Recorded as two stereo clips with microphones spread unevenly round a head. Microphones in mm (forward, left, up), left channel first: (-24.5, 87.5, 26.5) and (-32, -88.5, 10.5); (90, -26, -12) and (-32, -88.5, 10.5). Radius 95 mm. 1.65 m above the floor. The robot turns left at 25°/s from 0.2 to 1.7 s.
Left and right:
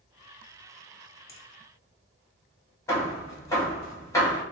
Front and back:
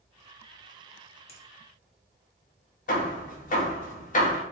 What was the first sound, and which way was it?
A finger snap, 60° left.